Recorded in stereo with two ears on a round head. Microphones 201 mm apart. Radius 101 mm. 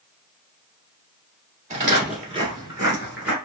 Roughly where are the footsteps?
Right.